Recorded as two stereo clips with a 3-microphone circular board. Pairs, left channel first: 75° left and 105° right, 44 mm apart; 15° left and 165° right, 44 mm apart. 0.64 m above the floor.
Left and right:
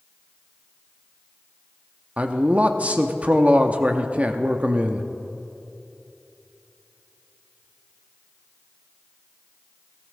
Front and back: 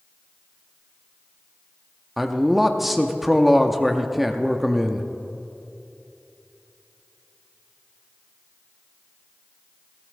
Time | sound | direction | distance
2.2 | a man speaking | 85° right | 0.7 m